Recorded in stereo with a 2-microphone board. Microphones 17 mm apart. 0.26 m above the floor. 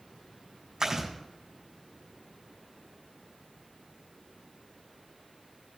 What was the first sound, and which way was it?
Chewing, 35° right (ahead or behind).